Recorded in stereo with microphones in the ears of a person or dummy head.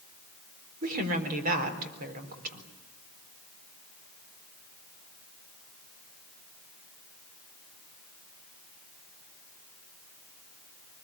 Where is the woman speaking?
45° right (ahead or behind), 4 m.